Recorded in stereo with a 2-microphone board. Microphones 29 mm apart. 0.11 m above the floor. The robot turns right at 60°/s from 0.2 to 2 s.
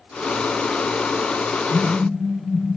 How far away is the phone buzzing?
About 4.5 m.